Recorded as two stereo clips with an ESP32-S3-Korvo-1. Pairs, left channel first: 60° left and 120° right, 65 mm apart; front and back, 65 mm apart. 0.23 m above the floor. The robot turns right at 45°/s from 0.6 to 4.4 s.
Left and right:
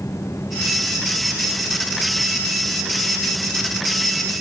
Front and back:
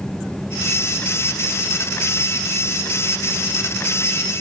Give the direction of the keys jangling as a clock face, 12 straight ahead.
I don't hear keys jangling.